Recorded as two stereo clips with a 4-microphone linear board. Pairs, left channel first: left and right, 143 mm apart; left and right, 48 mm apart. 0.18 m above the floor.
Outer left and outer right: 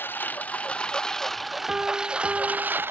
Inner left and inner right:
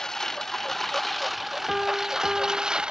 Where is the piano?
5° right (ahead or behind).